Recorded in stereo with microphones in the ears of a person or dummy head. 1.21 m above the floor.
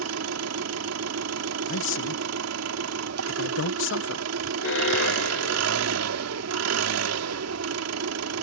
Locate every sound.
0.0 s an engine running: 80° right
1.7 s a man speaking: 60° left (ahead or behind)
4.6 s an alarm: 60° left (ahead or behind)